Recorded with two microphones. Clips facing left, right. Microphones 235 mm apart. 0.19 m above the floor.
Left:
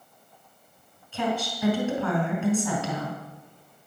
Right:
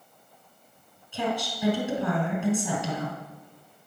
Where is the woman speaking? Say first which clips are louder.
Left 1 dB; 15° right (ahead or behind), 2.5 m.